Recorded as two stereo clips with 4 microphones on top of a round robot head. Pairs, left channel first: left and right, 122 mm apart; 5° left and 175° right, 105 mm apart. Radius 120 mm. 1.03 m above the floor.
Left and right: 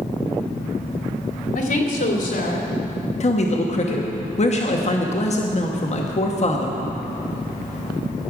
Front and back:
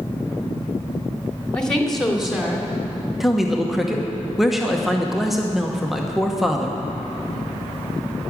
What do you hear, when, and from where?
1.6 s a woman speaking: 85° left, 2.5 m; by 2.7 s 105° left, 3 m
3.2 s a man speaking: 100° left, 1.2 m